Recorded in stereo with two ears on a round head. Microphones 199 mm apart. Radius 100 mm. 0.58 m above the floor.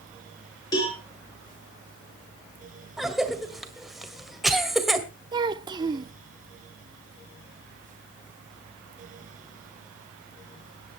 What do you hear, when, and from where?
0.7 s a cowbell: 20° left (ahead or behind), 6 m
3.0 s a cough: centre (ahead or behind), 2 m
5.3 s a child speaking: 20° right (ahead or behind), 0.5 m